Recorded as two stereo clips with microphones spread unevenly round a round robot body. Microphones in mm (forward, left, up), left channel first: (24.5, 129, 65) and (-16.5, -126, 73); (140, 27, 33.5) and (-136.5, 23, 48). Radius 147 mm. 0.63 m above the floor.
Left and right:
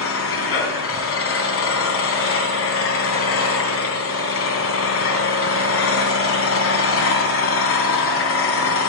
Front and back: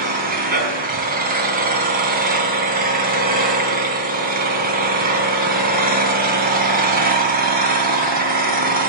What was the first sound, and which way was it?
An engine running, 120° left.